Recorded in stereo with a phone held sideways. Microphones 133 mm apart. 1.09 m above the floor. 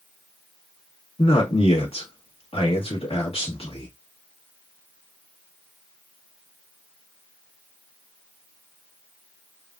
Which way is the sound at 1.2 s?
45° left (ahead or behind).